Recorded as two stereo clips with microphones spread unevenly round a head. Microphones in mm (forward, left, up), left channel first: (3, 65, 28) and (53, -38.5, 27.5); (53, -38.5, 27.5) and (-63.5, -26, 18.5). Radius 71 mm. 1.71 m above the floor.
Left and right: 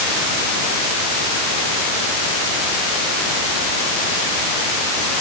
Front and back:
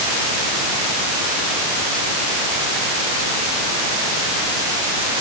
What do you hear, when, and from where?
Only background noise.